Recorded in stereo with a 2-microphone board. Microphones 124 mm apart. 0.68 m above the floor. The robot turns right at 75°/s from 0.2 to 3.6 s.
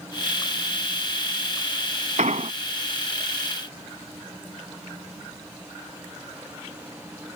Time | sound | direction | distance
2.2 | an explosion | 80° right | ?